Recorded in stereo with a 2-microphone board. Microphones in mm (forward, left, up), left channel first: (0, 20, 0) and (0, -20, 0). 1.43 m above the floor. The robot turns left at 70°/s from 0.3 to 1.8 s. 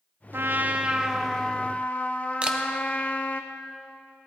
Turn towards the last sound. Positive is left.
turn(degrees=-25)  # may be behind; listen again after turning